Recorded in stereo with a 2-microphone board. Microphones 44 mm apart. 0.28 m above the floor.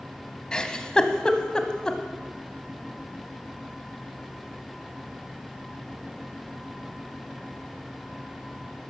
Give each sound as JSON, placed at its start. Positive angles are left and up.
{"t": 0.5, "sound": "a giggle", "side_deg": 20, "distance_m": 0.9}